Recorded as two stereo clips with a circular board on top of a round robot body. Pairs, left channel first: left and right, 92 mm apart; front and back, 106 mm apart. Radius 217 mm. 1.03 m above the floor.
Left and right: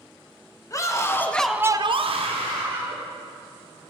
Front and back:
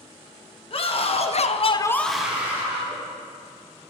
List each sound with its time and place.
0.7 s a scream: 35° left, 1.7 m; by 3.0 s 115° right, 2 m